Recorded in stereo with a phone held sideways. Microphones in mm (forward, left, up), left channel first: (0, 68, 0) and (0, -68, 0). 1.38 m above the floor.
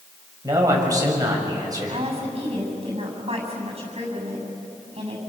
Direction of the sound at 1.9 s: 45° right (ahead or behind).